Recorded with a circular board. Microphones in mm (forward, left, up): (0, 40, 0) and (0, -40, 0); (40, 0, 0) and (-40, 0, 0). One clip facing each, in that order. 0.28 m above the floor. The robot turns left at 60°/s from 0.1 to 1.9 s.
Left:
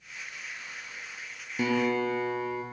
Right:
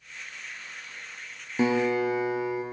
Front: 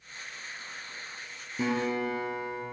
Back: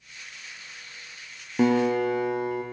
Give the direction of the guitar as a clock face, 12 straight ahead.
5 o'clock.